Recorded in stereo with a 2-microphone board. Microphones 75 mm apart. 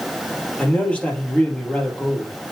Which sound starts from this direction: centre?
A man speaking, at 0.6 s.